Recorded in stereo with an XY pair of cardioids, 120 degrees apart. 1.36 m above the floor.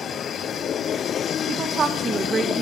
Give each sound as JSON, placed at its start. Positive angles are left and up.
{"t": 1.5, "sound": "a woman speaking", "azimuth_deg": -50, "distance_m": 1.7}